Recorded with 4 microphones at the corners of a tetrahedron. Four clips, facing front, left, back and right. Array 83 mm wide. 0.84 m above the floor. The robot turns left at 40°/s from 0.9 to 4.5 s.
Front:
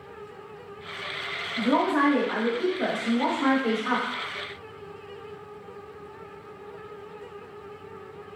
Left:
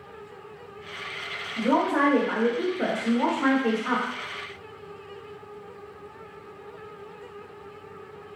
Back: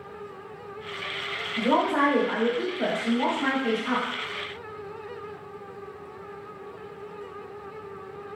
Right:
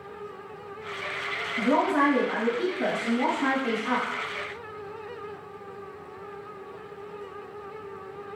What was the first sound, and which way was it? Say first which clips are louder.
A woman speaking: even, even; 150° left.